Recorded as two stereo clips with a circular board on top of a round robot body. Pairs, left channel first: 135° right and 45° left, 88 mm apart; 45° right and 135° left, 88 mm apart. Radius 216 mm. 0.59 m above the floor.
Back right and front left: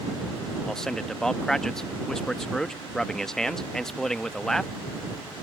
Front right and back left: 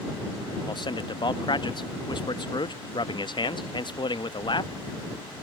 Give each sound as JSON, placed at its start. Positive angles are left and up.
{"t": 0.7, "sound": "a man speaking", "azimuth_deg": -50}